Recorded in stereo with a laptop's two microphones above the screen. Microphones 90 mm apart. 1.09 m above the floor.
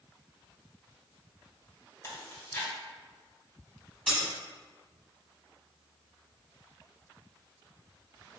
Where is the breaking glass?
10° right (ahead or behind), 1.0 m.